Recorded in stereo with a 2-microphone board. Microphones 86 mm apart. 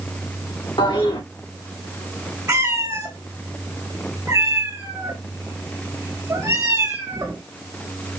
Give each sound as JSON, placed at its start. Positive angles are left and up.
{"t": 0.8, "sound": "a toilet flushing", "side_deg": 75, "distance_m": 2.0}
{"t": 2.5, "sound": "a cat meowing", "side_deg": -30, "distance_m": 1.9}